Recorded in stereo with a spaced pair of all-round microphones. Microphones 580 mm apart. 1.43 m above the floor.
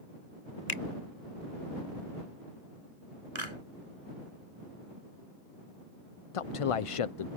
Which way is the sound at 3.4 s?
60° right (ahead or behind).